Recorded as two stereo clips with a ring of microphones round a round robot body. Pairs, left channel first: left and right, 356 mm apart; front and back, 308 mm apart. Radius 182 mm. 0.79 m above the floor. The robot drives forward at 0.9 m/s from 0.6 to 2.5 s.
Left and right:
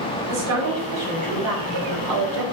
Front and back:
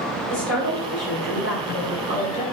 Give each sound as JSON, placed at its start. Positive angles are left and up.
{"t": 0.3, "sound": "a woman speaking", "azimuth_deg": -45, "distance_m": 3.5}